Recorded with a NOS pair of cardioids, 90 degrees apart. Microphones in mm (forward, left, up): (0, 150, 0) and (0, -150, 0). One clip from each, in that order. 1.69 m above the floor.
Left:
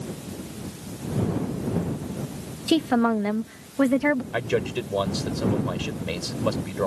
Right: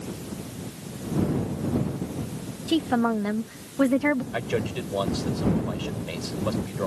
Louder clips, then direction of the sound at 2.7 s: Left 2 dB; 45° left.